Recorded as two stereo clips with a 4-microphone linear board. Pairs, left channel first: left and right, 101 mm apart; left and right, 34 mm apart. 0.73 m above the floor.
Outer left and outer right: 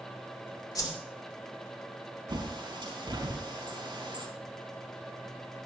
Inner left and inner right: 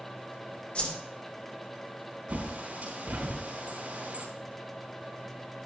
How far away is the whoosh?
About 2.5 m.